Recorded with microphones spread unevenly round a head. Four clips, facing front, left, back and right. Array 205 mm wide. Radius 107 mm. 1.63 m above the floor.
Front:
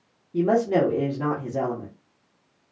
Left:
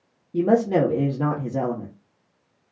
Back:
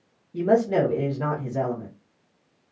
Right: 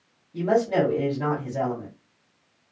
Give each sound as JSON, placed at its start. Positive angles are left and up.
{"t": 0.3, "sound": "a woman speaking", "azimuth_deg": 75, "distance_m": 0.8}